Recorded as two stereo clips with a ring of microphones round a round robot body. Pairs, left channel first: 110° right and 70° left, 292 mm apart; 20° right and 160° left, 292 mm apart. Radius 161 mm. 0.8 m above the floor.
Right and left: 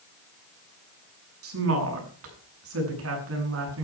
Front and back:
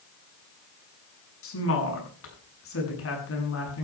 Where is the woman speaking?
25° left, 7.5 m.